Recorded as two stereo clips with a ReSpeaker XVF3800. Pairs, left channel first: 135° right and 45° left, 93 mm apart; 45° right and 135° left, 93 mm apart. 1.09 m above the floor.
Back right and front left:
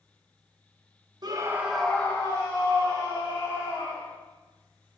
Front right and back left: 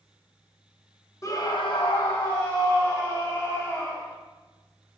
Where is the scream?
10° left, 1.0 m; by 4.1 s 110° right, 3.5 m.